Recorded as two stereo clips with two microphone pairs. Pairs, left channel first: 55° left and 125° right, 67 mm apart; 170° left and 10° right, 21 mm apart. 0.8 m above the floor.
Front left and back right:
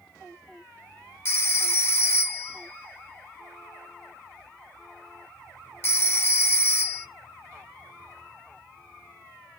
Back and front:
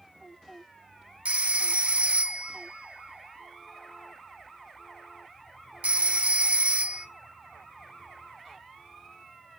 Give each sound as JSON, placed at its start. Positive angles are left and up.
{"t": 1.2, "sound": "a phone ringing", "azimuth_deg": 0, "distance_m": 0.8}